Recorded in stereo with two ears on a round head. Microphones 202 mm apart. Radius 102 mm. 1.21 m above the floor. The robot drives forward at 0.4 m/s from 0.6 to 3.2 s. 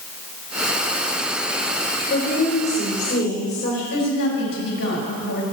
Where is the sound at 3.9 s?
55° left (ahead or behind), 6 m.